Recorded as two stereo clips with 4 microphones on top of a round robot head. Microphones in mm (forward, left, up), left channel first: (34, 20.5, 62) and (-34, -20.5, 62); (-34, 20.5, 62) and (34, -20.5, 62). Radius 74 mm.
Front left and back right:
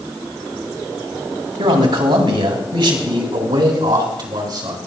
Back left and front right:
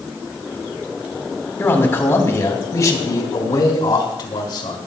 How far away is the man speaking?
About 3 m.